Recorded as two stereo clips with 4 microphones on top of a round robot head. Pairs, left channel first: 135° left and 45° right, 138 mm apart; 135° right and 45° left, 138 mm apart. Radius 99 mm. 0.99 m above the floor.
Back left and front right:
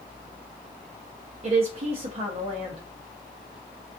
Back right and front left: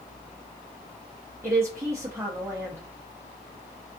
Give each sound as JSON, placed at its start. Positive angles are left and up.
{"t": 1.4, "sound": "a woman speaking", "azimuth_deg": -20, "distance_m": 0.7}